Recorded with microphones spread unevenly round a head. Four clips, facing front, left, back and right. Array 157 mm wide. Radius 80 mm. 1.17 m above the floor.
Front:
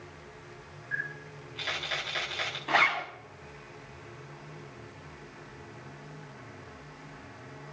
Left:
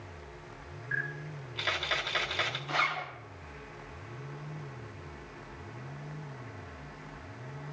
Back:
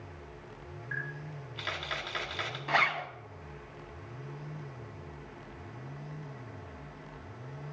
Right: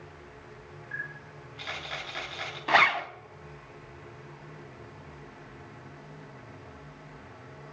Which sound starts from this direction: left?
A camera shutter, at 0.9 s.